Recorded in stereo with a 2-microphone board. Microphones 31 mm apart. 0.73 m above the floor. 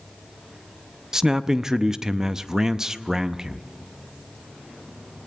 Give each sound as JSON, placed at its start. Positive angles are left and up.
{"t": 1.1, "sound": "a man speaking", "side_deg": -20, "distance_m": 0.6}